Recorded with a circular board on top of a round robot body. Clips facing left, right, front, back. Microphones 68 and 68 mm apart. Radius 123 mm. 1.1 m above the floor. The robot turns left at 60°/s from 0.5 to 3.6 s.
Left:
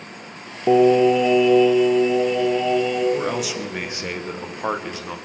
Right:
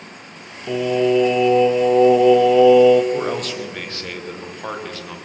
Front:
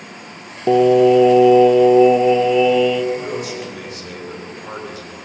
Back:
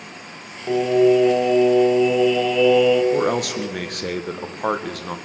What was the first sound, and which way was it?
Singing, 35° left.